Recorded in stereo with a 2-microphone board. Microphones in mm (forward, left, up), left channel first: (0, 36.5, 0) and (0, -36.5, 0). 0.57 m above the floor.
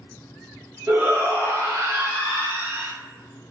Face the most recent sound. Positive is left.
turn(degrees=-30)  # may be behind; listen again after turning